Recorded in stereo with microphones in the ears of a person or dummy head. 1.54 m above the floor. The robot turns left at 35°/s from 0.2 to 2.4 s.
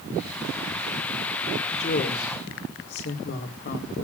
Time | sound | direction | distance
1.7 | a woman speaking | 25° left (ahead or behind) | 1.9 m